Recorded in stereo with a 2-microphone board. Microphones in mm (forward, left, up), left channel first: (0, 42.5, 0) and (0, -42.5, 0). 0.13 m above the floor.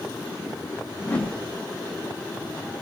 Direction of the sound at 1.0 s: 20° left (ahead or behind).